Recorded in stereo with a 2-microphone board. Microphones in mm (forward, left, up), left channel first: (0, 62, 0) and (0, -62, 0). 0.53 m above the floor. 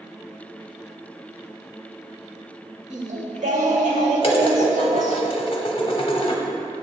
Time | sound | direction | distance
2.9 | singing | 80° right | 0.9 m
4.2 | dishes clattering | 45° left (ahead or behind) | 0.8 m